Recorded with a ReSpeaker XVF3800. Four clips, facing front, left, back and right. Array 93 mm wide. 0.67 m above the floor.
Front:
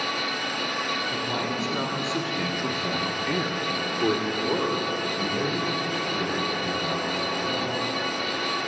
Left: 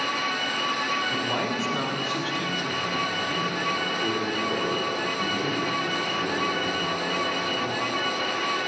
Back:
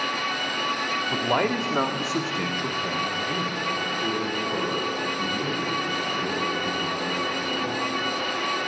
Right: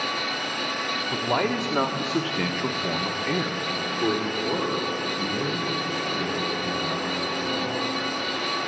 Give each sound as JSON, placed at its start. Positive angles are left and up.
{"t": 1.1, "sound": "a man speaking", "azimuth_deg": -155, "distance_m": 1.3}